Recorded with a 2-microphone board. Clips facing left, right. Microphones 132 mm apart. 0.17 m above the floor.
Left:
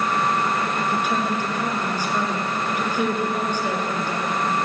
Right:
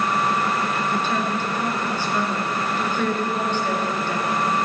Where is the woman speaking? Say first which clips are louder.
Even; 15° left (ahead or behind), 2.5 m.